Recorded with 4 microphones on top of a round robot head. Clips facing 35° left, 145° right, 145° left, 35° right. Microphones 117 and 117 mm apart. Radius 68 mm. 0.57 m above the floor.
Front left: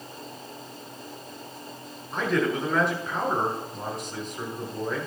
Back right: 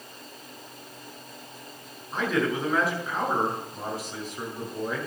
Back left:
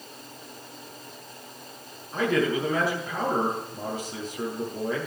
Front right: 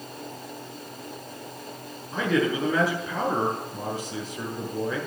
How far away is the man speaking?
About 6.5 m.